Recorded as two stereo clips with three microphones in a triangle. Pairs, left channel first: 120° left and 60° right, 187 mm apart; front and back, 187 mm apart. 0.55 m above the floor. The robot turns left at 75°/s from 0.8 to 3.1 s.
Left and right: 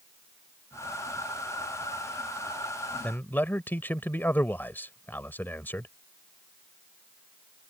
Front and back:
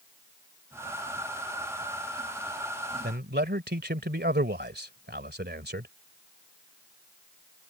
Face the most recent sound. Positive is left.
turn(degrees=-160)